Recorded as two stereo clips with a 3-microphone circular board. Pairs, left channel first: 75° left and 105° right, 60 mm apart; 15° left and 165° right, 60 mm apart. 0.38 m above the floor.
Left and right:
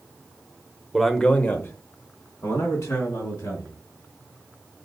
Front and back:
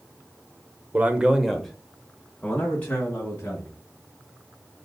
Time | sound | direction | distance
0.9 | a man speaking | 170° left | 0.9 m